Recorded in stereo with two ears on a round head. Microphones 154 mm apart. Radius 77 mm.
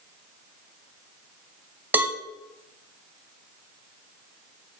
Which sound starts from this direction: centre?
A cowbell, at 1.9 s.